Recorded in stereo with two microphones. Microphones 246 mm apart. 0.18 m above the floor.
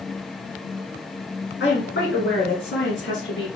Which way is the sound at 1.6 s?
55° left (ahead or behind).